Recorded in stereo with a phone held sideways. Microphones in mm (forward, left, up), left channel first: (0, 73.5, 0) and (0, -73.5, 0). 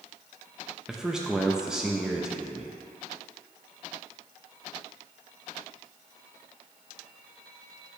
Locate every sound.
0.9 s a man speaking: 5° right (ahead or behind), 0.6 m